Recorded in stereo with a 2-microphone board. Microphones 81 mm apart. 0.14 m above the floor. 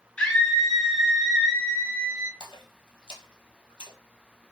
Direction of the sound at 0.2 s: 10° left (ahead or behind).